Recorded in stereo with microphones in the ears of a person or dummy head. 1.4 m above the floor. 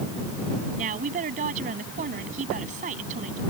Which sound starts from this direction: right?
A woman speaking, at 0.8 s.